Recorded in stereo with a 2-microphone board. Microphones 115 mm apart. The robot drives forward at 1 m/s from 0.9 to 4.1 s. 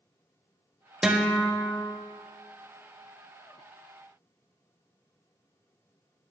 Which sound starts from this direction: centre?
A guitar, at 1.0 s.